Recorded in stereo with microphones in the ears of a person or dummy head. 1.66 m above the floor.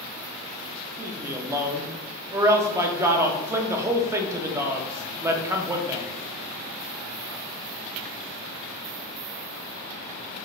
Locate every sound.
1.0 s a man speaking: 15° right (ahead or behind), 0.5 m